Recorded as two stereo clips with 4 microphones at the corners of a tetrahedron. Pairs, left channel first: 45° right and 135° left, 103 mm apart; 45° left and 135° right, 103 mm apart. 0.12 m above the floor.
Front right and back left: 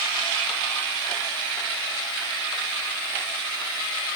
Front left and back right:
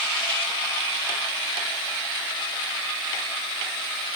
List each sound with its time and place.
Only background noise.